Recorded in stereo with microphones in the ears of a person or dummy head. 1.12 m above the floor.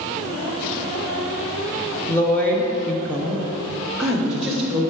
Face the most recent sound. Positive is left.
turn(degrees=0)  # may be behind; listen again after turning